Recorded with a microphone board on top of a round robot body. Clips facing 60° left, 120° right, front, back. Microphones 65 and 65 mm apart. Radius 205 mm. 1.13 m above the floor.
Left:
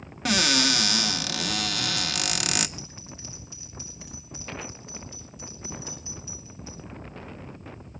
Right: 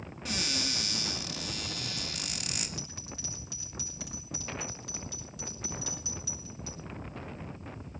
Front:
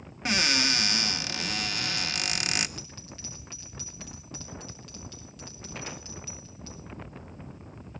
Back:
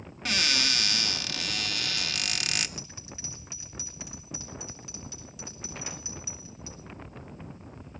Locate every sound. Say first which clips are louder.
0.2 s a cupboard door: left 12 dB, front 2 dB; 70° left, 0.6 m
2.8 s a bell: left 1 dB, even; 100° right, 8 m